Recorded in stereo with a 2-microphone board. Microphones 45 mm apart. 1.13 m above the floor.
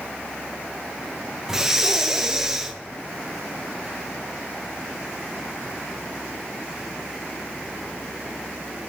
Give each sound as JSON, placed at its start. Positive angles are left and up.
{"t": 1.5, "sound": "breathing", "side_deg": -10, "distance_m": 0.6}